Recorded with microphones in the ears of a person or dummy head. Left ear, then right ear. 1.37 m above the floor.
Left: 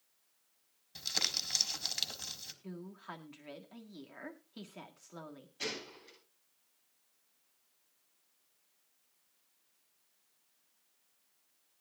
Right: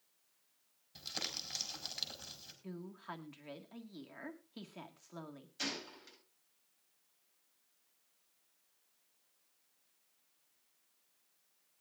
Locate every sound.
0.9 s crumpling: 15° left (ahead or behind), 3.5 m
2.6 s a woman speaking: 5° left (ahead or behind), 1.7 m
5.6 s a gunshot: 65° right (ahead or behind), 9.5 m